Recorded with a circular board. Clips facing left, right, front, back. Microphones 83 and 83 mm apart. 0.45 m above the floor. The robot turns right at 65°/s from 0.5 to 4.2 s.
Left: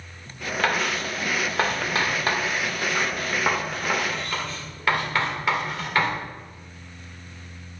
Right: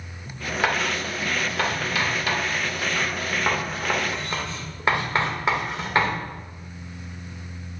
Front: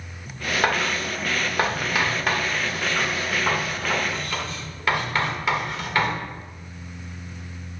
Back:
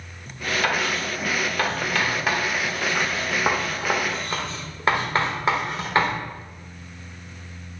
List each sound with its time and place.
0.6 s writing: 15° right, 1.7 m; by 6.2 s 140° right, 1.7 m